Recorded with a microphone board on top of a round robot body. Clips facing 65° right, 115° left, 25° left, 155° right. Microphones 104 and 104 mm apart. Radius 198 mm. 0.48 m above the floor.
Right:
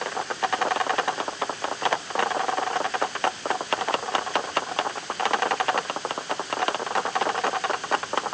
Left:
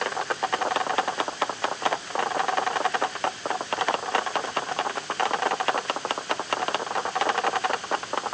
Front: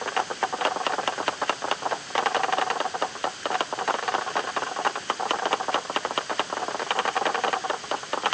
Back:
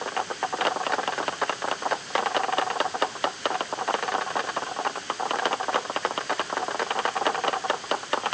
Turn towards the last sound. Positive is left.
No sound to turn to.